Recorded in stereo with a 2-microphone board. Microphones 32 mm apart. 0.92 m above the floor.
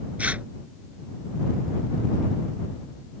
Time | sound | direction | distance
0.2 | tearing paper | 45° right (ahead or behind) | ?